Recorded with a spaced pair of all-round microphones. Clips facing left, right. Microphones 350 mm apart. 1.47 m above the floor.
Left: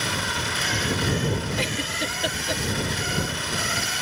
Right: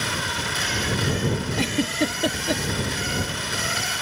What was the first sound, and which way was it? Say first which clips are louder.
A giggle: right 7 dB; 60° right (ahead or behind).